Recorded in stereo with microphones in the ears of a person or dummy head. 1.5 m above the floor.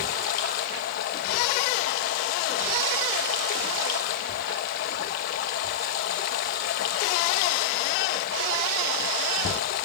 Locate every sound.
0.0 s running water: 45° left (ahead or behind), 1.0 m